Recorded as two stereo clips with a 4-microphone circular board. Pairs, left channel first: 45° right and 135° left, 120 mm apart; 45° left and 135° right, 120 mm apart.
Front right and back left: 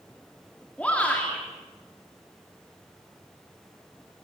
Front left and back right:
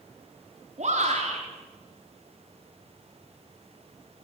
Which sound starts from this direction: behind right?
A shout, at 0.8 s.